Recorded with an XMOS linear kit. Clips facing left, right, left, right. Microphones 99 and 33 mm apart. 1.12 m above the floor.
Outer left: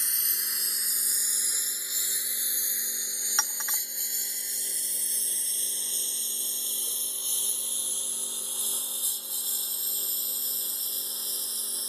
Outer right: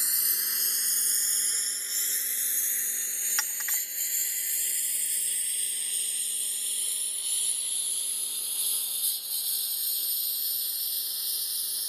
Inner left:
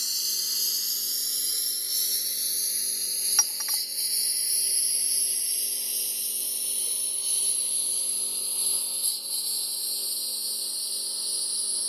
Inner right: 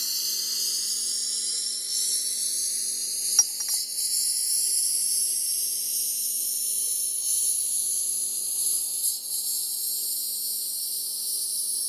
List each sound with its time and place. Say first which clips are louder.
0.0 s a lawn mower: even, even; 5° right (ahead or behind); by 11.9 s 35° left (ahead or behind)
3.4 s a clink: outer left 3 dB, inner right 2 dB; 30° left (ahead or behind)